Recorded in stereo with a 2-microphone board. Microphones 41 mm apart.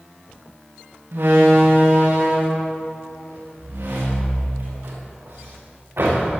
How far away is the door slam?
About 10 m.